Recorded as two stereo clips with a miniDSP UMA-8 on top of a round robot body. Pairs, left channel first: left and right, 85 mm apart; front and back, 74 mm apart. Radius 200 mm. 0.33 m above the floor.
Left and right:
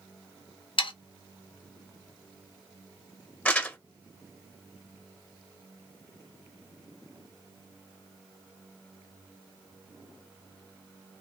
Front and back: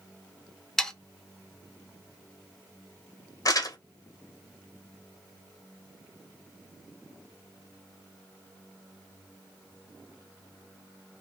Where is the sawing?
85° left, 0.7 m.